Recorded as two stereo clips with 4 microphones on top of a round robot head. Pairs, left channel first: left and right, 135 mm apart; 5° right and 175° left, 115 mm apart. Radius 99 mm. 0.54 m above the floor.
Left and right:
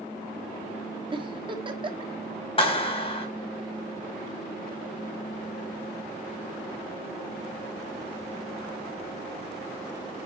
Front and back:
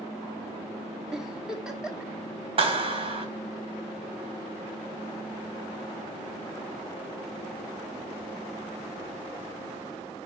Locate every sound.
1.1 s a giggle: 105° right, 1.3 m
2.6 s a clap: 135° left, 3 m